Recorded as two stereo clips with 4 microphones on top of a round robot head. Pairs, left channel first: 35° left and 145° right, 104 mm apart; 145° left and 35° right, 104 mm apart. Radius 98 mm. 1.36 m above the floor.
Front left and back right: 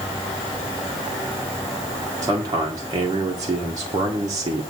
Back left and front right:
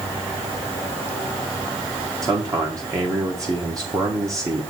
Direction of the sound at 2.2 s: 90° right.